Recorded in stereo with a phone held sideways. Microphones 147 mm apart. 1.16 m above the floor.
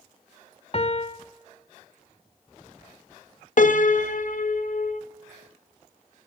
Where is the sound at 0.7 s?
45° left (ahead or behind), 0.6 m.